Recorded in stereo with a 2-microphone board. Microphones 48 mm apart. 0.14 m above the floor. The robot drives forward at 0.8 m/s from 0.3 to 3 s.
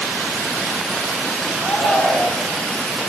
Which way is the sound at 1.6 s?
40° left (ahead or behind).